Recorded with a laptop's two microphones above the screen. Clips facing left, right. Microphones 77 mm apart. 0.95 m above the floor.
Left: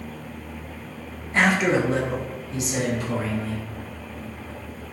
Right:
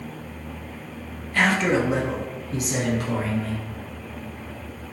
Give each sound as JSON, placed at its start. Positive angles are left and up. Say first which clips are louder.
{"t": 1.3, "sound": "a man speaking", "louder": "left 1 dB", "side_deg": 25, "distance_m": 0.6}